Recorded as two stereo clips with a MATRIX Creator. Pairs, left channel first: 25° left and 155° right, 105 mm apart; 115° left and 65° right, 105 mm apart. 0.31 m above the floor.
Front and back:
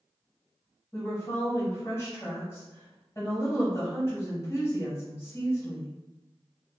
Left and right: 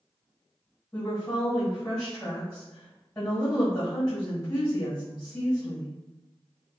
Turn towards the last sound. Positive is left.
turn(degrees=45)